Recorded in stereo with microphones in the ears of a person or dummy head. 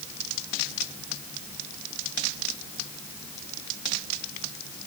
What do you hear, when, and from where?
Only background noise.